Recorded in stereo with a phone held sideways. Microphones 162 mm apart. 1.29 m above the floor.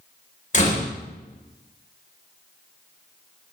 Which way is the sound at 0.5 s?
45° left (ahead or behind).